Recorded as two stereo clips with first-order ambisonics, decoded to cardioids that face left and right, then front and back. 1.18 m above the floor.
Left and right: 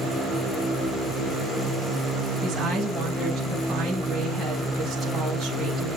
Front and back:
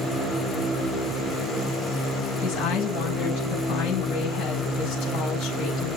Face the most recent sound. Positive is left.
turn(degrees=-15)